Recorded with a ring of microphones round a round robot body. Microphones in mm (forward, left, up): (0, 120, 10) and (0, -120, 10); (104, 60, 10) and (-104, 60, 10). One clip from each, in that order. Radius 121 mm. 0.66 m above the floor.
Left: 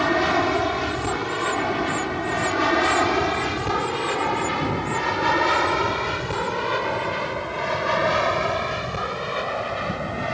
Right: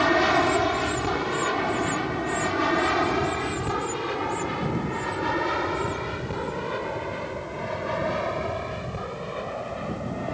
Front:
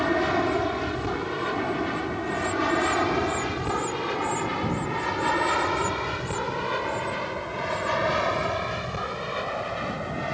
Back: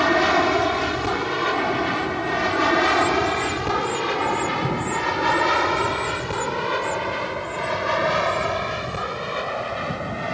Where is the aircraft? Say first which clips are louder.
Even, back 6 dB; 175° right; by 10.3 s 110° left.